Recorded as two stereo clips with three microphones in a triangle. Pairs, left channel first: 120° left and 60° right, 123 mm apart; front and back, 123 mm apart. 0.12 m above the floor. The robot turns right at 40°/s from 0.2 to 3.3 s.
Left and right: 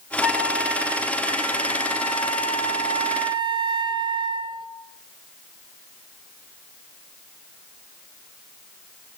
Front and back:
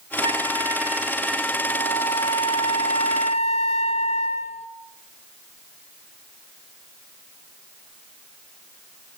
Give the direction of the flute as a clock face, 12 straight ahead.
5 o'clock.